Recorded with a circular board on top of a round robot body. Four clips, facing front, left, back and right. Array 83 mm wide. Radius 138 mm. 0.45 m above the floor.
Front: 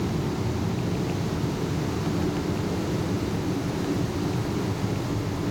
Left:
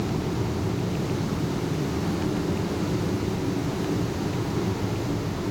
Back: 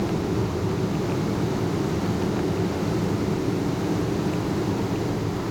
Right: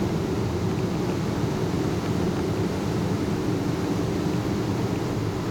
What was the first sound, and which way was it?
Only background noise.